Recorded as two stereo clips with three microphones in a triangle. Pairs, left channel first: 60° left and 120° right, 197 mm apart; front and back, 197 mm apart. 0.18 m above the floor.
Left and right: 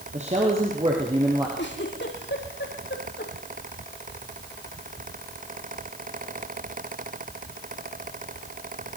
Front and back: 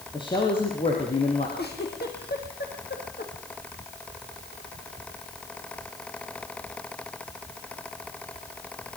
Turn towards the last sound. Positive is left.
turn(degrees=35)